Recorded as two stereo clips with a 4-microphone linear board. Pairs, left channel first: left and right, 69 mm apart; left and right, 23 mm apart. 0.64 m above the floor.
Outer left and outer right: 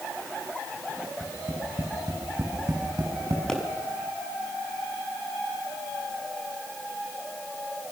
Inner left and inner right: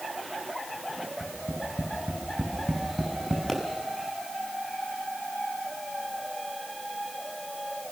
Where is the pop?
10° left (ahead or behind), 5.5 m.